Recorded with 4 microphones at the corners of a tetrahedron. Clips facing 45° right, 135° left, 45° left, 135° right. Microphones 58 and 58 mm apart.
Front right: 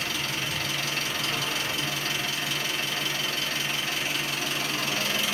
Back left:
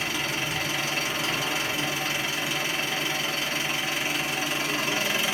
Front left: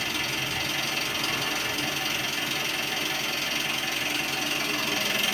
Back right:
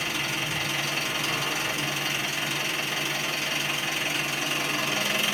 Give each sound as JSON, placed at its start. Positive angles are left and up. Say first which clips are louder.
{"t": 0.0, "sound": "an engine running", "louder": "back left 2 dB, back right 1 dB", "azimuth_deg": -175, "distance_m": 1.0}